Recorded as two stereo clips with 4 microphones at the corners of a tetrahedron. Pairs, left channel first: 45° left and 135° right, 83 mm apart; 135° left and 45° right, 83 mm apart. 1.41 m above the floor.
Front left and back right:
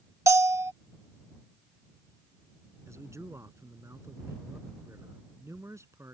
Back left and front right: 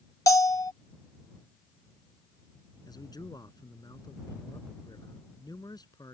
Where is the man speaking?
170° left.